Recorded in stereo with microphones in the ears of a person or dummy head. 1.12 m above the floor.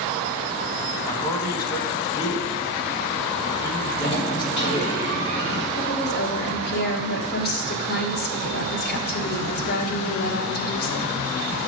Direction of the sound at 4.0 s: 35° left (ahead or behind).